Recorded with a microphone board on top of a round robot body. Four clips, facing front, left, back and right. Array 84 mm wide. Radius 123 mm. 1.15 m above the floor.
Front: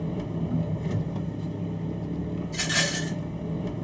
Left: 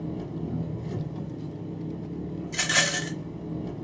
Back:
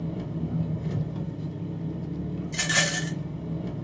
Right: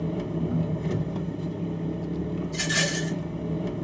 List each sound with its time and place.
0.0 s an engine running: 65° right, 0.9 m
2.5 s a rattle: 120° left, 1.1 m